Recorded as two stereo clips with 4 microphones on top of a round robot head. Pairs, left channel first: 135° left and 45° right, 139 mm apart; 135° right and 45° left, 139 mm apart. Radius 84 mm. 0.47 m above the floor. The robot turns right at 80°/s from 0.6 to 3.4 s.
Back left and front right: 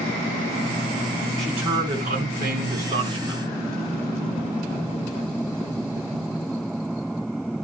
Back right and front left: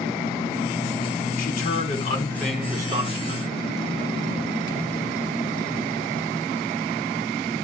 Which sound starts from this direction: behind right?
A man speaking, at 1.4 s.